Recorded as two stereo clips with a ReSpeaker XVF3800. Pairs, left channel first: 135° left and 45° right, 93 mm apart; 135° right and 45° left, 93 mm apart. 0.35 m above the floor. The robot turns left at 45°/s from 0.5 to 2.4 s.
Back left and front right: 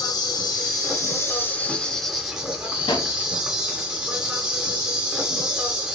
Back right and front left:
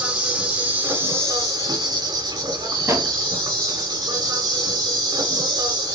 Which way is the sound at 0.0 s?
120° left.